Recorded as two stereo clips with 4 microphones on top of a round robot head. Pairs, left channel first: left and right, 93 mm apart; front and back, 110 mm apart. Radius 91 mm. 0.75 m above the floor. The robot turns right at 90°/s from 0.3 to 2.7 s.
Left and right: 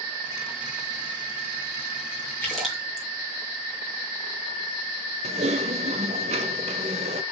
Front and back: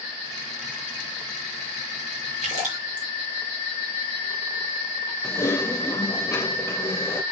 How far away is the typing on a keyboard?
About 0.8 m.